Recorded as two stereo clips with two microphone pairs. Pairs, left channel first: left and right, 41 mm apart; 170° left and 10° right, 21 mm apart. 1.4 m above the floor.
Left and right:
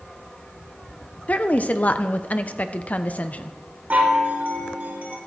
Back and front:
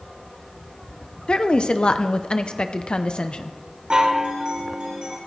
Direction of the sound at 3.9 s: 45° right.